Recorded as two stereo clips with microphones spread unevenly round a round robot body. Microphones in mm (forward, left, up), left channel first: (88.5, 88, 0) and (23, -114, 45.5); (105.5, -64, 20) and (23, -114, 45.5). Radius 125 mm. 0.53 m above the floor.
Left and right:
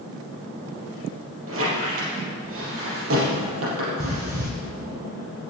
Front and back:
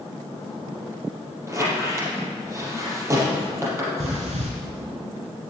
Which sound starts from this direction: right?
A squeak, at 1.5 s.